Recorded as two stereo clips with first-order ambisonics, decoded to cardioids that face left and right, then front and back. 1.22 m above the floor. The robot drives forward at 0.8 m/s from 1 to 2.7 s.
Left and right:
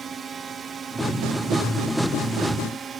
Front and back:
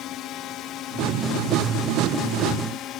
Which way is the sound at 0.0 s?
30° right.